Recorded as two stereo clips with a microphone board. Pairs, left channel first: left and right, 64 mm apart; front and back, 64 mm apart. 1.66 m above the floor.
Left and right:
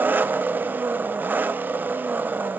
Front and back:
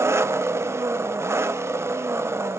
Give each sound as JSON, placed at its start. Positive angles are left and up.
{"t": 0.0, "sound": "an engine running", "azimuth_deg": -145, "distance_m": 0.8}